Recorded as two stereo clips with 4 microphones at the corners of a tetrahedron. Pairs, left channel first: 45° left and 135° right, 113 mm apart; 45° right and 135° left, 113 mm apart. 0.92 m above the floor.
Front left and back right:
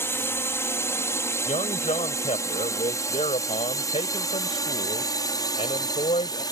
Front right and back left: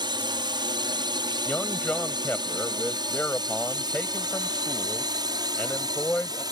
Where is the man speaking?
35° left.